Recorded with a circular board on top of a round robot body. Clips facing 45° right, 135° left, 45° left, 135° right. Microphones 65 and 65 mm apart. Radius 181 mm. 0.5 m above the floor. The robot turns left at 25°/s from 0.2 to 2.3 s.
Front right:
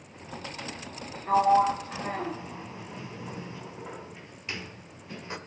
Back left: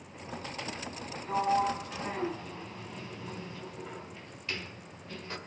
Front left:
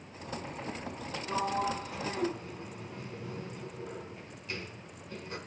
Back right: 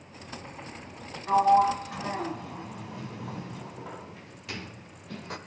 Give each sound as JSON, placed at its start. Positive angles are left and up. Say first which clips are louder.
{"t": 1.3, "sound": "a sliding door", "louder": "front right 7 dB, back right 12 dB", "azimuth_deg": -90, "distance_m": 2.0}